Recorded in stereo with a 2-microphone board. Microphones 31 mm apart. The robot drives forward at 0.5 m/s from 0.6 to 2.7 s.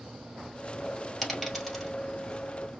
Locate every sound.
1.2 s a dropped coin: centre (ahead or behind), 1.7 m